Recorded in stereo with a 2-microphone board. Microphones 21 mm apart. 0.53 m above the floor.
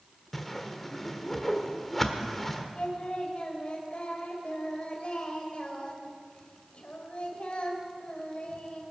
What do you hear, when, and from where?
0.3 s a whoosh: 10° left (ahead or behind), 1.3 m
2.8 s singing: 55° left (ahead or behind), 2.5 m